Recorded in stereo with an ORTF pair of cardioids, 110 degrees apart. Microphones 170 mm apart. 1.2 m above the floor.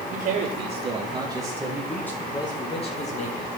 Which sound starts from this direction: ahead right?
A man speaking, at 0.1 s.